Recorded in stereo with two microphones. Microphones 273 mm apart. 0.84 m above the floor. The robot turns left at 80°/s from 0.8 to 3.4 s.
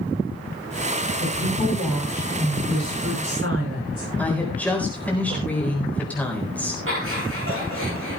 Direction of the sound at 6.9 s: 50° right (ahead or behind).